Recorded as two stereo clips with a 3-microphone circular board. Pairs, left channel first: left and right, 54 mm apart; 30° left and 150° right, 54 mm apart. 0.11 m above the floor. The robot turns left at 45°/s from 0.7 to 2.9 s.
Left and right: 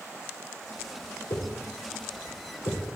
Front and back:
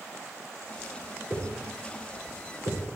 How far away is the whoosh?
About 4.5 m.